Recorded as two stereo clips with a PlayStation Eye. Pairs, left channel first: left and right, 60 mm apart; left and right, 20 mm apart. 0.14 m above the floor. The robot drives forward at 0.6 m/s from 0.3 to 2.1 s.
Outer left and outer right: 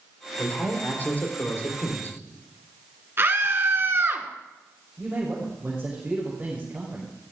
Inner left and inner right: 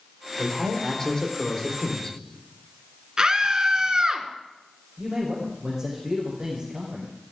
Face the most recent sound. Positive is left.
turn(degrees=-15)  # may be behind; listen again after turning